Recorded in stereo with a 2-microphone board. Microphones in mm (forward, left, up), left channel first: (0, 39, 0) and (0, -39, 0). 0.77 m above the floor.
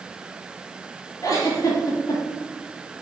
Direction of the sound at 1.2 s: 50° left (ahead or behind).